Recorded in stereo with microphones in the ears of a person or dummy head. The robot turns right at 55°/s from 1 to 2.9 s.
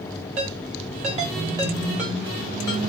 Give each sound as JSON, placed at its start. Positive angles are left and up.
{"t": 0.4, "sound": "a ringtone", "side_deg": -35, "distance_m": 1.6}